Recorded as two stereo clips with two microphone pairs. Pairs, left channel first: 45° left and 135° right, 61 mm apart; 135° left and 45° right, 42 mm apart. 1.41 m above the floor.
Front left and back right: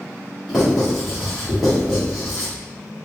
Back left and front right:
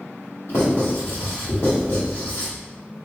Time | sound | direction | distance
0.5 | writing | 135° left | 1.7 m